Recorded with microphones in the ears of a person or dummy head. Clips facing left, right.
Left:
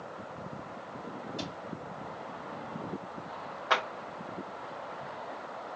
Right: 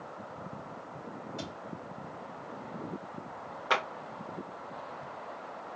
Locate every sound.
1.4 s a cupboard door: 25° right (ahead or behind), 1.6 m
3.7 s a clap: 35° right (ahead or behind), 1.4 m